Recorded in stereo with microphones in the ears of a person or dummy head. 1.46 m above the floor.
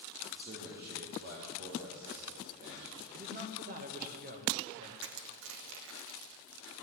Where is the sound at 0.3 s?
55° right (ahead or behind), 3 m.